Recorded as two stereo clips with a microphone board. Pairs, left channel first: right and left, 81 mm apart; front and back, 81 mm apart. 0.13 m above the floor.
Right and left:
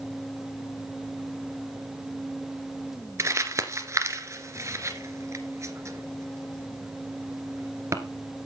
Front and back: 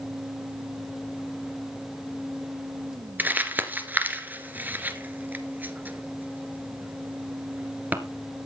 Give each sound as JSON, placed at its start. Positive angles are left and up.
{"t": 3.2, "sound": "crumpling", "azimuth_deg": 120, "distance_m": 1.9}